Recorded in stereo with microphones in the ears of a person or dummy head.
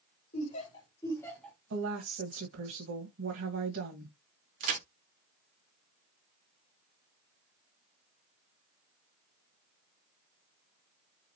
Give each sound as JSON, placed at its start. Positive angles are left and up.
{"t": 0.3, "sound": "laughter", "side_deg": 45, "distance_m": 2.0}
{"t": 1.7, "sound": "a woman speaking", "side_deg": -65, "distance_m": 1.2}
{"t": 4.6, "sound": "a crack", "side_deg": -45, "distance_m": 0.7}